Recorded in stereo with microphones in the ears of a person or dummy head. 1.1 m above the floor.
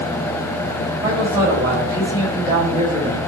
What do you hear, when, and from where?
1.0 s a man speaking: 20° right (ahead or behind), 4.5 m